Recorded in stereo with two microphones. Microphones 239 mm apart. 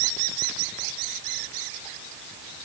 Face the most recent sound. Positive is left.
No sound to turn to.